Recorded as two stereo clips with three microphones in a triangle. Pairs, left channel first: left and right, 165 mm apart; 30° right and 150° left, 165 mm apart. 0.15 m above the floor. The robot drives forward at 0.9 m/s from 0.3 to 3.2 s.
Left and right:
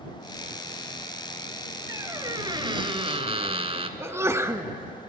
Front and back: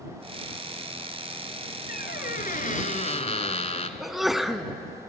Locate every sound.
1.9 s a squeak: 25° right, 2 m; by 3.9 s 55° right, 1.2 m
4.0 s a sneeze: 125° right, 1.1 m